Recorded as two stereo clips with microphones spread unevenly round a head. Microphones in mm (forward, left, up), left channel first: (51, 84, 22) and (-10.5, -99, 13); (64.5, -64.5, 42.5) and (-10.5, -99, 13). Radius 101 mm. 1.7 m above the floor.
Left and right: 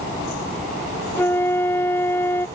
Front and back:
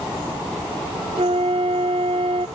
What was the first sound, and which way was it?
A flute, 150° left.